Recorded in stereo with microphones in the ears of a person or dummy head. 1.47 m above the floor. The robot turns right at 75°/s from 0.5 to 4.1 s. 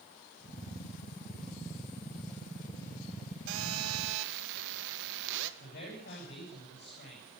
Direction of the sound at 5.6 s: 45° left (ahead or behind).